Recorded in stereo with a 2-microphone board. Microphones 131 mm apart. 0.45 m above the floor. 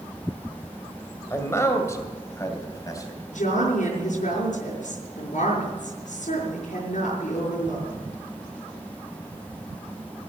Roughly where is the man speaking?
Left.